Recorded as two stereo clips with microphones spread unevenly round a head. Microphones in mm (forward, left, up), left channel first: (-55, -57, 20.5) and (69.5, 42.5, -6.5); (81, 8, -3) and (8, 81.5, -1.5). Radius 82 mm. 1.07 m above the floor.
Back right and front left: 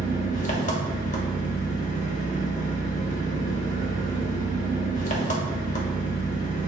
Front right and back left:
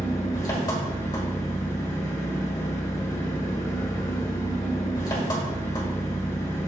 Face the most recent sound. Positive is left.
turn(degrees=-110)